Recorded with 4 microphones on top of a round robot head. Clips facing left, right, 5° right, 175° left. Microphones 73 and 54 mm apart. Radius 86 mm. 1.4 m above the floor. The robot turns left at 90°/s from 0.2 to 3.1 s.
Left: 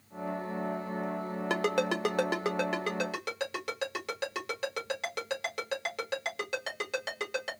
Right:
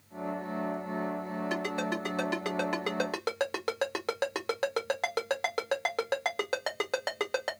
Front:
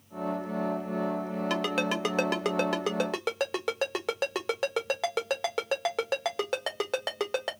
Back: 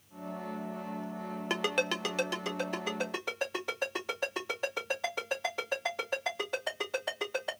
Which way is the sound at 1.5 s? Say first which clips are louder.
Left 5 dB, front 1 dB; 110° left.